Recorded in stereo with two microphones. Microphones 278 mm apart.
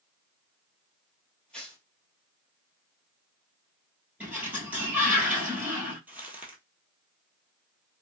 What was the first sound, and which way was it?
Tearing paper, 5° left (ahead or behind).